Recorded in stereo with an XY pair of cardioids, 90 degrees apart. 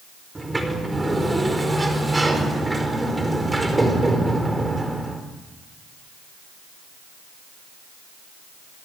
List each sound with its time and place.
0.3 s a sliding door: 20° right, 4.5 m